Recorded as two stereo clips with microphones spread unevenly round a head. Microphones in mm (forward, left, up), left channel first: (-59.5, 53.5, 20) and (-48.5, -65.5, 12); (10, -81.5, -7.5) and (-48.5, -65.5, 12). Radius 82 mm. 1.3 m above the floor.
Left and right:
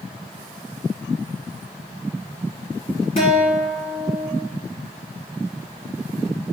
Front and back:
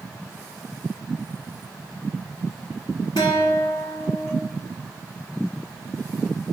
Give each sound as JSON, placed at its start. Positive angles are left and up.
{"t": 3.2, "sound": "a guitar", "azimuth_deg": 40, "distance_m": 1.0}